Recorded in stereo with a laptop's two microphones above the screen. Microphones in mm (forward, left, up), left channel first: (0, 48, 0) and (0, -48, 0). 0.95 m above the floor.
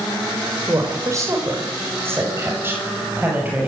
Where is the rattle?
No rattle in this recording.